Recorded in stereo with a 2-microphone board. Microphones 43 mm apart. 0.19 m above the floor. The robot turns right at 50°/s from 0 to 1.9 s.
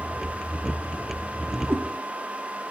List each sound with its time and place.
1.7 s a cat meowing: 70° right (ahead or behind), 1.1 m; by 1.8 s 75° right (ahead or behind), 1.1 m